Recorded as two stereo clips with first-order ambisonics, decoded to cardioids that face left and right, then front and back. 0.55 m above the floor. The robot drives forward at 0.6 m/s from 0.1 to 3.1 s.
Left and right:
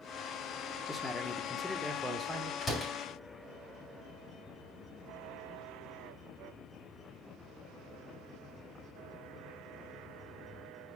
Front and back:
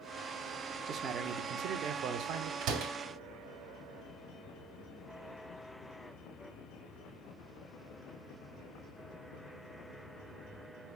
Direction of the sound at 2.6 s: 160° left.